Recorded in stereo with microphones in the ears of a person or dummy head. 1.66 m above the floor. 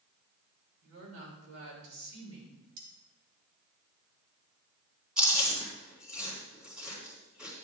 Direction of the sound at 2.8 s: 45° right (ahead or behind).